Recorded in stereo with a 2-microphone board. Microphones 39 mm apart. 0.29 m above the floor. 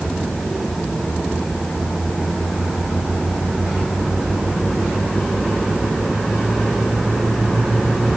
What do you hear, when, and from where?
Only background noise.